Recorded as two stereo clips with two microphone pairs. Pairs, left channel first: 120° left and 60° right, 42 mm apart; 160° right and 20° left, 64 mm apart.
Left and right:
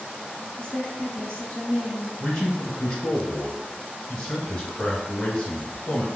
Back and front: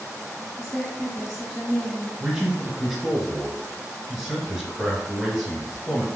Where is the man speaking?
100° left, 1.1 m.